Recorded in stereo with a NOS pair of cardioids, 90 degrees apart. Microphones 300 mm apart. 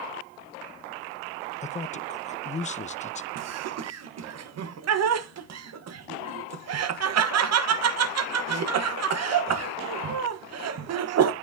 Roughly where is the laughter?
Ahead right.